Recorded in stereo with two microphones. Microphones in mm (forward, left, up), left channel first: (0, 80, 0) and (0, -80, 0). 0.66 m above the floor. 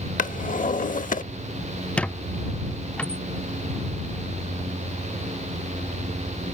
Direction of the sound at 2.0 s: 5° left (ahead or behind).